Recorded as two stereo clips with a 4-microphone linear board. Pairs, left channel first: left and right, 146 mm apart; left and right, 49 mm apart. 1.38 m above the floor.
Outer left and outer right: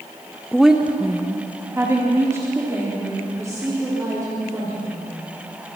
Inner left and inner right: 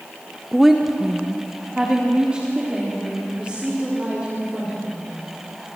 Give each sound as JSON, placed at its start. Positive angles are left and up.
{"t": 0.5, "sound": "a woman speaking", "side_deg": 0, "distance_m": 0.8}